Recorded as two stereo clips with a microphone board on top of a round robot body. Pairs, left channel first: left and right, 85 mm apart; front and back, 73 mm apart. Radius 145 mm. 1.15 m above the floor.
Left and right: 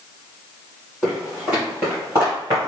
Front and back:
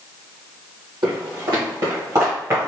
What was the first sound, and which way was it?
Footsteps, 175° right.